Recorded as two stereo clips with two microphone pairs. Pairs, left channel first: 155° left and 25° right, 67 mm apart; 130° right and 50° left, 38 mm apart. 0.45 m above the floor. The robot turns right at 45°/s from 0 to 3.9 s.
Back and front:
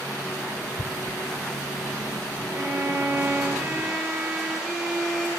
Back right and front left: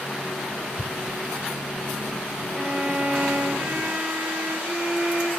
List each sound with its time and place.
0.8 s tearing paper: 155° left, 0.7 m; by 1.2 s 175° left, 0.7 m
2.5 s a violin: 5° right, 1.7 m; by 5.3 s 60° left, 1.7 m